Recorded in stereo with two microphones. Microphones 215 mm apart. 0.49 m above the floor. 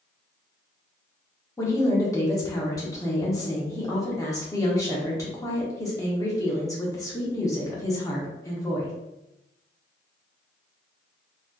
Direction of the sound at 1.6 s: 15° left (ahead or behind).